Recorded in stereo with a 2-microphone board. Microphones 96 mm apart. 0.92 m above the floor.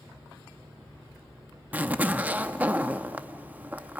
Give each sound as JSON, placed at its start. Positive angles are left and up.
{"t": 1.7, "sound": "a zipper", "side_deg": -20, "distance_m": 0.7}